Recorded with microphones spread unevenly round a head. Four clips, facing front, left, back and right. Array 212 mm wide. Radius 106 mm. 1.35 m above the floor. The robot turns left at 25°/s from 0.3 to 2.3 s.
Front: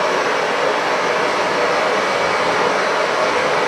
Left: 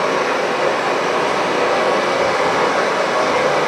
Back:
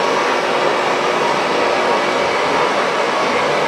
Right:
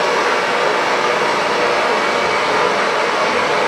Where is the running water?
170° left, 1.0 m; by 3.7 s 120° left, 1.0 m.